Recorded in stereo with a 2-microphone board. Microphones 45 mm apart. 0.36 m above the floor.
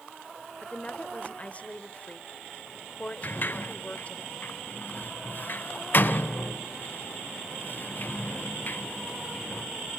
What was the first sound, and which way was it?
A woman speaking, 30° left (ahead or behind).